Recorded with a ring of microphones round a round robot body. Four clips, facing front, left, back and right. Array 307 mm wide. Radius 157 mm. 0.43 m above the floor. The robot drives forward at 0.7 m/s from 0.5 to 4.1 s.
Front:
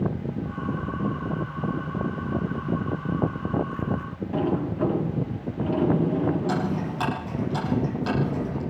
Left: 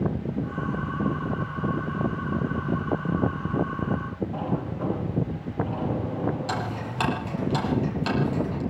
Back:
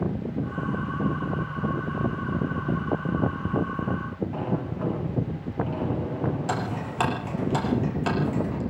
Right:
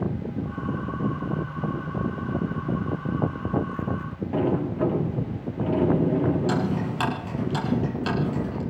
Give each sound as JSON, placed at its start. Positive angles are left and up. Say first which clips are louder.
{"t": 4.3, "sound": "a sliding door", "louder": "right 10 dB, front 9 dB", "azimuth_deg": -80, "distance_m": 4.5}
{"t": 6.5, "sound": "ticking", "louder": "right 5 dB, front 3 dB", "azimuth_deg": -170, "distance_m": 5.5}